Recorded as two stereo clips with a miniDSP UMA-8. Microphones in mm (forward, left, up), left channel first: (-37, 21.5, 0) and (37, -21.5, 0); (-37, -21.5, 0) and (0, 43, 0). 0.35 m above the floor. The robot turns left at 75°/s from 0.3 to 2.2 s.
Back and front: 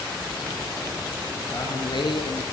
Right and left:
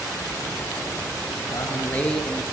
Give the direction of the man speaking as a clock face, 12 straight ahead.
5 o'clock.